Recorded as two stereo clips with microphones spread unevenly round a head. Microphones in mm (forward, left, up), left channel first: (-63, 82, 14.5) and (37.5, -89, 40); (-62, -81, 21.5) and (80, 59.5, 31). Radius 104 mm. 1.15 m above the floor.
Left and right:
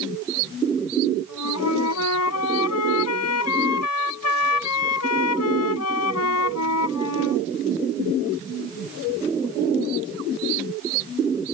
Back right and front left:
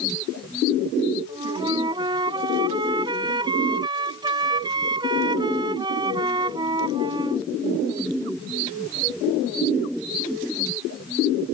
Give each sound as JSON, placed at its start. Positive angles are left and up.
{"t": 1.3, "sound": "a flute", "azimuth_deg": 115}